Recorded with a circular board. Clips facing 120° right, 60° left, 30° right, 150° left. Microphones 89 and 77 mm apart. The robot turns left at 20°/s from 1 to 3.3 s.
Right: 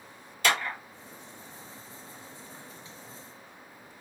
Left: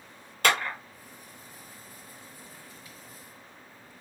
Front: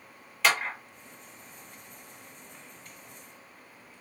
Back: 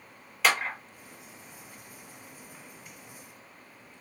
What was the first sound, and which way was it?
A clap, 60° left.